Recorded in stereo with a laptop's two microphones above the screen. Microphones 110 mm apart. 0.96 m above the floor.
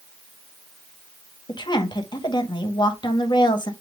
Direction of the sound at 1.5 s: 40° left (ahead or behind).